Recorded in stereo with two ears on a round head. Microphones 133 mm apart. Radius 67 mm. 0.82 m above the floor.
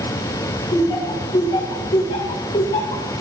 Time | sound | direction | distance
0.7 | laughter | 35° left (ahead or behind) | 3 m